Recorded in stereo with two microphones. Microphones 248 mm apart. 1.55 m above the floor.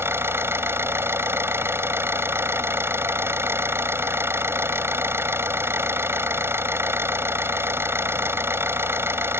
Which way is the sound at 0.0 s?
10° right (ahead or behind).